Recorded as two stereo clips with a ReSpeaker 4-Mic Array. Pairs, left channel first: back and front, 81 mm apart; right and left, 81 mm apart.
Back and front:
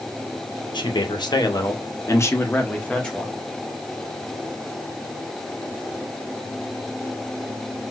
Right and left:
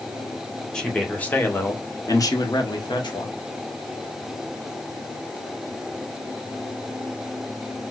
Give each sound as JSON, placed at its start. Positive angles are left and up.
{"t": 0.7, "sound": "a man speaking", "azimuth_deg": -170, "distance_m": 1.1}